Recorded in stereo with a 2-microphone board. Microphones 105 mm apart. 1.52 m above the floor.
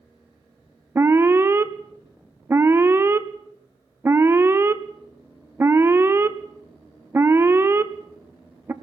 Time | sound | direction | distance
0.9 | an alarm | 25° right (ahead or behind) | 0.8 m